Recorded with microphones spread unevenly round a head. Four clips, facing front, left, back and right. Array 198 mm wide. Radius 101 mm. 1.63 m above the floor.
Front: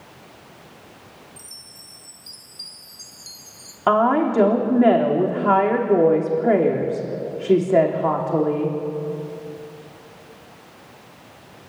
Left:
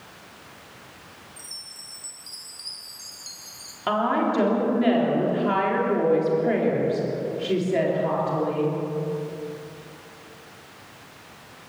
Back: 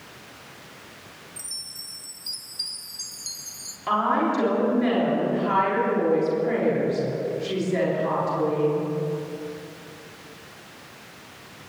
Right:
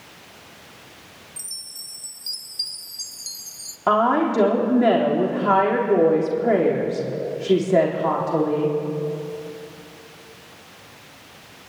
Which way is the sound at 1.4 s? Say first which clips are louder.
Left 2 dB, even; 115° right.